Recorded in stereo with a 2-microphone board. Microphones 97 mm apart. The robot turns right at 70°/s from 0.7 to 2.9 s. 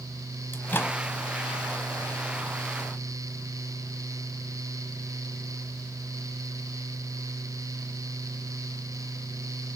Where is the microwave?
20° left (ahead or behind), 1.0 m; by 1.0 s 30° left (ahead or behind), 1.0 m.